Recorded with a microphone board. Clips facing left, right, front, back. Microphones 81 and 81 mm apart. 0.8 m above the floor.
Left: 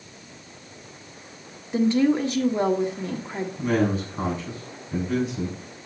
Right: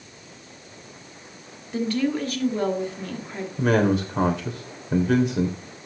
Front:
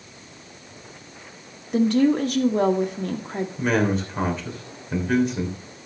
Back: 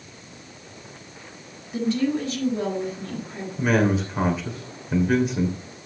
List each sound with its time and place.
1.7 s a woman speaking: 25° left, 1.6 m
3.6 s a man speaking: 90° right, 3 m